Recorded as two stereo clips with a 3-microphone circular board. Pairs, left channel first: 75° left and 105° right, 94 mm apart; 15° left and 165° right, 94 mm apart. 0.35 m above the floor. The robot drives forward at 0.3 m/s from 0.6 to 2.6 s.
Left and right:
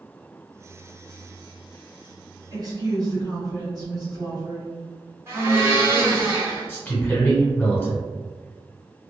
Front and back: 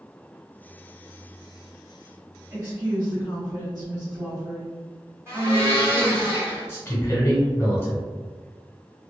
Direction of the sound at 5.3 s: 140° right.